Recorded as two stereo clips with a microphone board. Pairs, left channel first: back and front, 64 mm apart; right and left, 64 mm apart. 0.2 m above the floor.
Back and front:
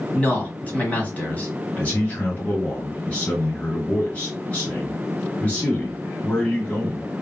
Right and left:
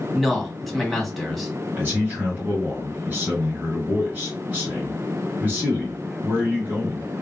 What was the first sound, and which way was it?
A man speaking, 175° right.